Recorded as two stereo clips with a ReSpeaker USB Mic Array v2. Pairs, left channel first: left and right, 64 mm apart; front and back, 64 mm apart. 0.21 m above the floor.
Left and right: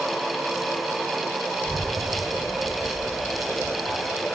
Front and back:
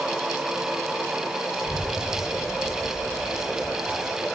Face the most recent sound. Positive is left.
turn(degrees=175)